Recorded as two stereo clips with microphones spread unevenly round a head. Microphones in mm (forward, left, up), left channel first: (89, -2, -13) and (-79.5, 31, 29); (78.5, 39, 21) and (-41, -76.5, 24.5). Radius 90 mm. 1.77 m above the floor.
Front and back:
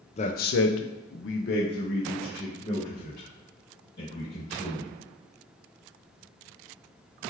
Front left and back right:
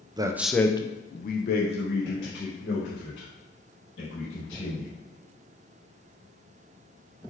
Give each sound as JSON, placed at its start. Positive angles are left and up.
{"t": 0.2, "sound": "a man speaking", "azimuth_deg": -70, "distance_m": 0.6}